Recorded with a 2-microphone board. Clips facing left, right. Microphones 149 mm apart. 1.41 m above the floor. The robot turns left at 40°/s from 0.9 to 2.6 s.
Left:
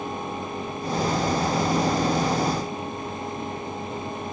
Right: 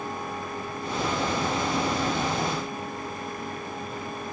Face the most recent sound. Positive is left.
No sound to turn to.